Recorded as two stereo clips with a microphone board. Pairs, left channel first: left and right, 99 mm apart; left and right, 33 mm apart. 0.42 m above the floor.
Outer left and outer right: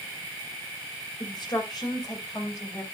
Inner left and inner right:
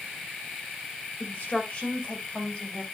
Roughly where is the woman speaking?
Left.